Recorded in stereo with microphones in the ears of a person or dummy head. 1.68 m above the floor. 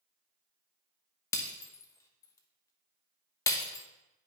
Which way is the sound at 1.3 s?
25° left (ahead or behind).